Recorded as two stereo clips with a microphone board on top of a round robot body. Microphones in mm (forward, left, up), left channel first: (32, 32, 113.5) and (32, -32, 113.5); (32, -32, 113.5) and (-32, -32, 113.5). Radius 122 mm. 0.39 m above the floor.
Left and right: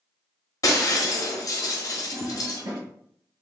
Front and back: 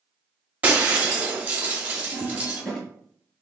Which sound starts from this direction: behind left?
Breaking glass, at 0.6 s.